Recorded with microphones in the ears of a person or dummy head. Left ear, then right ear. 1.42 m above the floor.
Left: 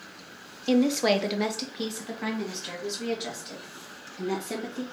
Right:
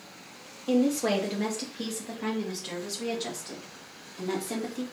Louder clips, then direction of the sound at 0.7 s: Left 3 dB; 45° left (ahead or behind).